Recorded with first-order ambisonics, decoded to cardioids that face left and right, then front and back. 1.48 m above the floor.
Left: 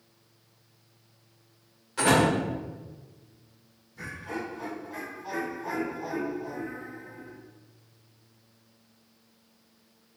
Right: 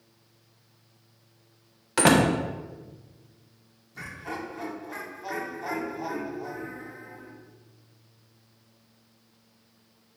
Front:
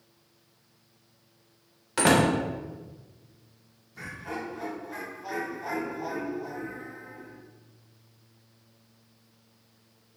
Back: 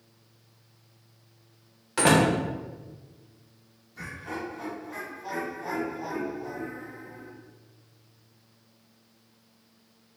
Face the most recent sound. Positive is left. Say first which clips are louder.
# even, even
turn(degrees=-85)